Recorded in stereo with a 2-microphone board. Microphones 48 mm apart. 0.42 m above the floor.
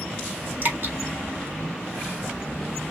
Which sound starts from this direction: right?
Dripping, at 0.6 s.